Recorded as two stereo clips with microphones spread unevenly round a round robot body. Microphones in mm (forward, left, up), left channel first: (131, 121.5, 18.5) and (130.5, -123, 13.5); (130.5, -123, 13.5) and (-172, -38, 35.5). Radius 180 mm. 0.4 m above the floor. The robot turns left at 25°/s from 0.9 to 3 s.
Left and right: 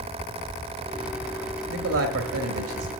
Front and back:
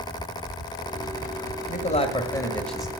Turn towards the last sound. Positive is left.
turn(degrees=-110)